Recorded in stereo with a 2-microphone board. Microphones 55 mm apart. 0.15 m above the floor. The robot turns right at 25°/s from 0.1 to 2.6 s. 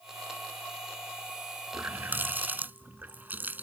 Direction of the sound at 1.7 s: 40° right (ahead or behind).